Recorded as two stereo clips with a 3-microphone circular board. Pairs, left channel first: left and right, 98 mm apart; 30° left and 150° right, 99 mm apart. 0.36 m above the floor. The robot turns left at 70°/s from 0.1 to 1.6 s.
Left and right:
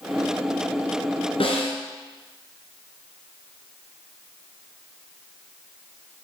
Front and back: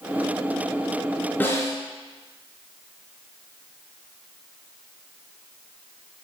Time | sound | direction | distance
1.4 | a snare drum | 100° left | 2.5 m